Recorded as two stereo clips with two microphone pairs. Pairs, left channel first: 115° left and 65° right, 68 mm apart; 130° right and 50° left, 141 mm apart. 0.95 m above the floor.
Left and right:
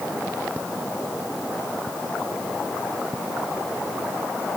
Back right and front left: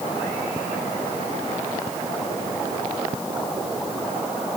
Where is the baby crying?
No baby crying in this recording.